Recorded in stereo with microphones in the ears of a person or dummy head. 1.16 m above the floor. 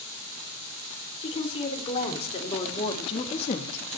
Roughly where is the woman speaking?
Left.